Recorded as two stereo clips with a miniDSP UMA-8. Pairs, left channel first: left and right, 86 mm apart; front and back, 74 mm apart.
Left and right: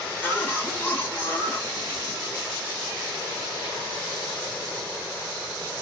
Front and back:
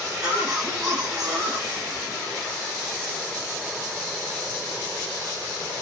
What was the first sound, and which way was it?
A cough, 115° left.